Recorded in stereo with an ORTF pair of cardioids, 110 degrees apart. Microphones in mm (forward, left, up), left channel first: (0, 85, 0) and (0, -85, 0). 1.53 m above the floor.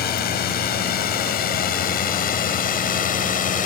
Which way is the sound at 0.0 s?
65° left.